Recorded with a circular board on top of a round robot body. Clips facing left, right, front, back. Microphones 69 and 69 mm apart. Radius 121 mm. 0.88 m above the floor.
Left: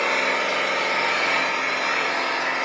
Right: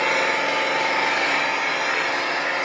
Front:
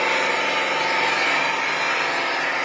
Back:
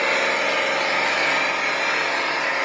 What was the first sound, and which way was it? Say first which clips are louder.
An engine running: right 1 dB, even; 95° right.